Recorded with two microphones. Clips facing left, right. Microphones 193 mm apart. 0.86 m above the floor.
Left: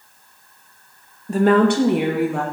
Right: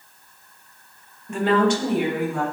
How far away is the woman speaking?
About 0.6 m.